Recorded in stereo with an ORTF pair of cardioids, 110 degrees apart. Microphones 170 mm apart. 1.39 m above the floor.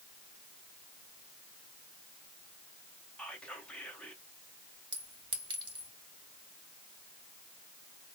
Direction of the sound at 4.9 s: 25° right.